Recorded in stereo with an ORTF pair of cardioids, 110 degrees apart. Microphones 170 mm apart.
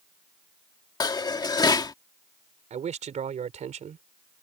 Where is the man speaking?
45° right.